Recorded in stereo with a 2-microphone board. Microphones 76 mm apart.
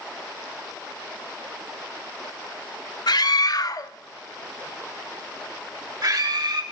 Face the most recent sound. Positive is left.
turn(degrees=-65)  # may be behind; listen again after turning